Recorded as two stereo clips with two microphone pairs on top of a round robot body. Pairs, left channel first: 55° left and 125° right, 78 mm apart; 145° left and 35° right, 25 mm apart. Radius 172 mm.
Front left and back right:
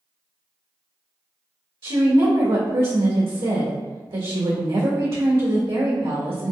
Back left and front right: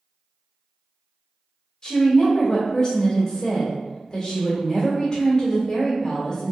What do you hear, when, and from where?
1.8 s a woman speaking: 140° right, 1.9 m